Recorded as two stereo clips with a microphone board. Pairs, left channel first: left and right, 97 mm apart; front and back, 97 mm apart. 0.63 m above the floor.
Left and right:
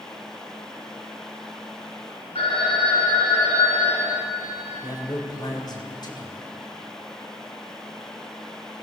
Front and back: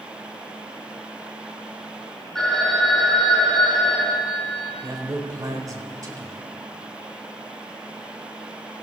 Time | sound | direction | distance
2.4 | a phone ringing | 85° left | 5.5 m
4.8 | a man speaking | 130° left | 3 m